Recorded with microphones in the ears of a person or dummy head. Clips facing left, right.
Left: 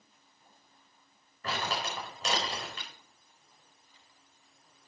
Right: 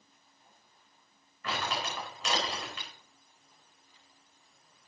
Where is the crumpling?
30° left (ahead or behind), 4 m.